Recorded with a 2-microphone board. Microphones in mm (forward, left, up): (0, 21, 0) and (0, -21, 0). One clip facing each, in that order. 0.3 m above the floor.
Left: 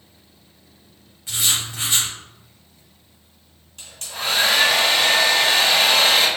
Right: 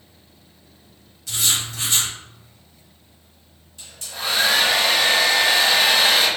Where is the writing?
25° left (ahead or behind), 2 m.